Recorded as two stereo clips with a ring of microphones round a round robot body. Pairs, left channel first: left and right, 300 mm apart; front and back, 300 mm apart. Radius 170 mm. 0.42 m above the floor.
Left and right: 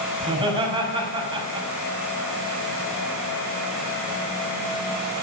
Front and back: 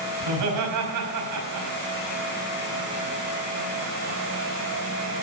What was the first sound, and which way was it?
Laughter, 165° right.